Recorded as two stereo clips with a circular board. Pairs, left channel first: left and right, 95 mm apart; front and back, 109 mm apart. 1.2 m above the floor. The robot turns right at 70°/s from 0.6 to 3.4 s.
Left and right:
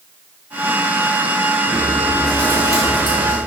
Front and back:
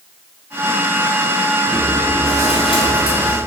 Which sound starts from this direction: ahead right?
Chewing, at 1.7 s.